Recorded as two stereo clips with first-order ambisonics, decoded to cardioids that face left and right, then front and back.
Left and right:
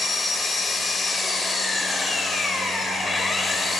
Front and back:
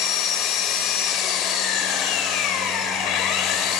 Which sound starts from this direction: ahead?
An engine running, at 0.0 s.